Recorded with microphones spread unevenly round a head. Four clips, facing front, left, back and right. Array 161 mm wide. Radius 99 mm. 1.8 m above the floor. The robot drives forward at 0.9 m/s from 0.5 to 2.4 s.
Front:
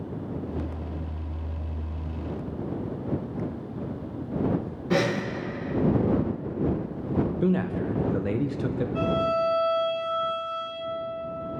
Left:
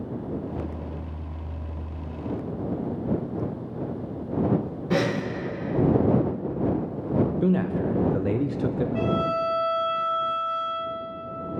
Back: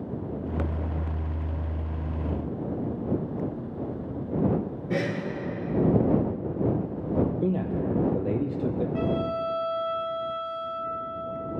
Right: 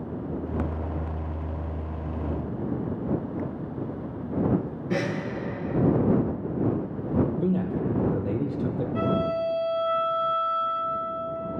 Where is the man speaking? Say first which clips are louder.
Left 2 dB, front 1 dB; 105° left, 0.5 m.